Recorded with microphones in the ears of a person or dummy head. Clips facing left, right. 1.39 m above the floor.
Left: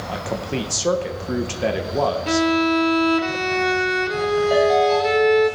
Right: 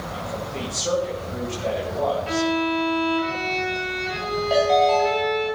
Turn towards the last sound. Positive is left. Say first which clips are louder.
# even
turn(degrees=15)  # may be behind; listen again after turning